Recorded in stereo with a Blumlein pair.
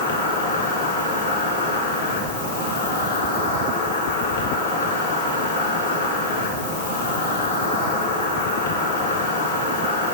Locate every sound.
0.0 s an insect: 65° left, 4 m